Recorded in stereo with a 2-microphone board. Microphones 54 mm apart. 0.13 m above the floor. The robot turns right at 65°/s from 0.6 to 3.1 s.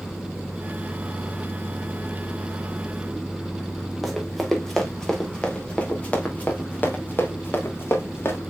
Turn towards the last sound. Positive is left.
turn(degrees=45)  # may be behind; listen again after turning